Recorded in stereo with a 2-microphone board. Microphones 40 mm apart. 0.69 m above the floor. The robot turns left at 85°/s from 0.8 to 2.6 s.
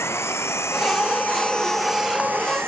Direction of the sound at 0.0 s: 85° left.